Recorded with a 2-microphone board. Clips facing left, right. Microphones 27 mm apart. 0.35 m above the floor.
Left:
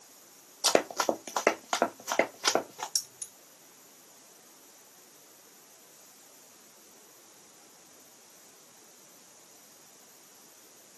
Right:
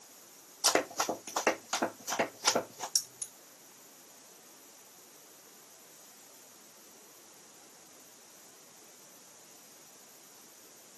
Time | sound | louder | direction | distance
0.6 | running footsteps | left 4 dB | 50° left (ahead or behind) | 0.5 m
3.0 | keys jangling | right 2 dB | 10° left (ahead or behind) | 0.7 m